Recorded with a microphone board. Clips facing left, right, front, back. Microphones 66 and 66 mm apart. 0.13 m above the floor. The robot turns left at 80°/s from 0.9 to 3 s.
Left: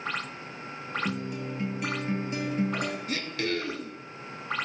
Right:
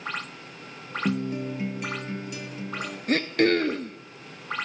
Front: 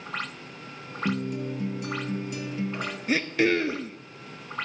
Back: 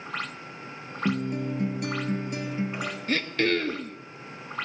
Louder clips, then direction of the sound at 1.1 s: Right 10 dB, back 1 dB; 120° right.